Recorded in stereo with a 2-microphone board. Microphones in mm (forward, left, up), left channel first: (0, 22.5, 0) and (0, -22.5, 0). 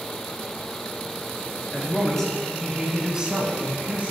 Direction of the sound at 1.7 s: 15° left (ahead or behind).